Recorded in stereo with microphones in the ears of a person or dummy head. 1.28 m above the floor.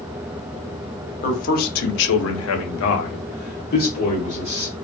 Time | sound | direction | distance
1.2 | a man speaking | 40° left (ahead or behind) | 0.9 m